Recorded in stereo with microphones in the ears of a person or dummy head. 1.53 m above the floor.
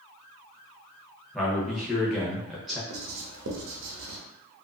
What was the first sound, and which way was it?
A man speaking, centre (ahead or behind).